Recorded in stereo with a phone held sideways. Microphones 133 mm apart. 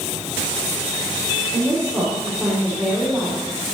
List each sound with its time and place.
1.5 s a woman speaking: 15° left (ahead or behind), 4 m; by 3.4 s 5° right (ahead or behind), 4 m